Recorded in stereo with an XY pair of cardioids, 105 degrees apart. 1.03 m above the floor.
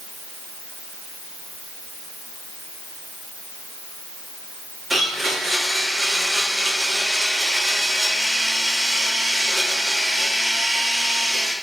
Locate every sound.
4.9 s a blender: 10° right, 1.7 m